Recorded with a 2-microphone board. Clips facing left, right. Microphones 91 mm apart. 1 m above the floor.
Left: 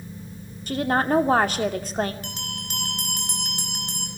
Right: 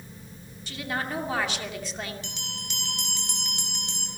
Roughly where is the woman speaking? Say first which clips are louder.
Left 10 dB; left.